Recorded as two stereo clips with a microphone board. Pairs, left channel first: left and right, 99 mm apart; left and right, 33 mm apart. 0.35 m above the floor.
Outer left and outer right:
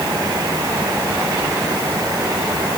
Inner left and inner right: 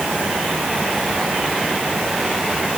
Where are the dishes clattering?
No dishes clattering in this recording.